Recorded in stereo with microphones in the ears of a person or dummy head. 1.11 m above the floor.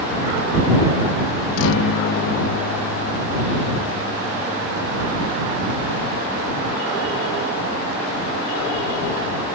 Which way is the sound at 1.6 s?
80° left.